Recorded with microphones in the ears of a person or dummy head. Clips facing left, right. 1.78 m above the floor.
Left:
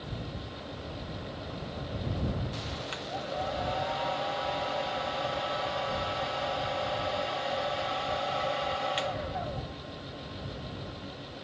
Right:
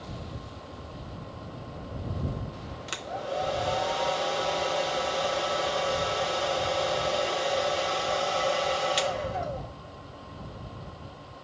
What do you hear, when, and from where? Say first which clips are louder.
2.9 s a hair dryer: right 5 dB; 55° right (ahead or behind)